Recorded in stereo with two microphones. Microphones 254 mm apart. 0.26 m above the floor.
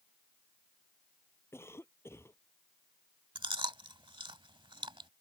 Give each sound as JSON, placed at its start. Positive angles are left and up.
{"t": 1.5, "sound": "a cough", "side_deg": 10}
{"t": 3.4, "sound": "chewing", "side_deg": -20}